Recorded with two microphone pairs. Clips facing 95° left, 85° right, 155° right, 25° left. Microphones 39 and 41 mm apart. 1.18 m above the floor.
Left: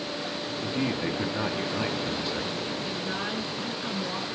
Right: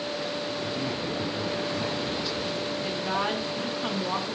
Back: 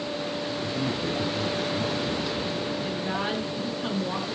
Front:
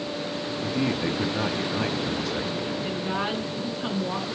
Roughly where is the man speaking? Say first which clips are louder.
Left 2 dB, front 5 dB; ahead left.